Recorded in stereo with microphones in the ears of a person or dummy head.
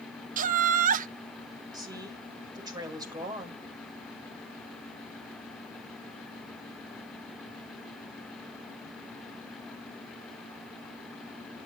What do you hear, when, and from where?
0.4 s laughter: 40° right (ahead or behind), 1.0 m
1.7 s a woman speaking: 15° right (ahead or behind), 6 m